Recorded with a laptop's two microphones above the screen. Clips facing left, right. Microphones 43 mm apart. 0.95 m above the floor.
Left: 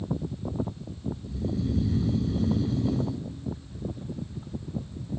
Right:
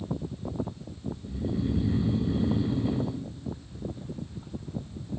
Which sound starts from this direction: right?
Snoring, at 1.2 s.